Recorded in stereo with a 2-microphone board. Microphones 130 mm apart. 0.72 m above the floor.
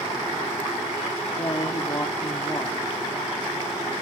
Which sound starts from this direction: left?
A woman speaking, at 1.4 s.